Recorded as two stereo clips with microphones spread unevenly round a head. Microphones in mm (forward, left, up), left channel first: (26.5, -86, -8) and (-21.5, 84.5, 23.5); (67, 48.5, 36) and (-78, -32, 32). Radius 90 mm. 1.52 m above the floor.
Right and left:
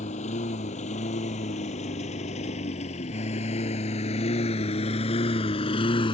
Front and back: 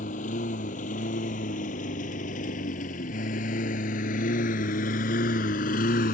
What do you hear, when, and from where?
0.0 s a lawn mower: 20° right; by 6.1 s 10° right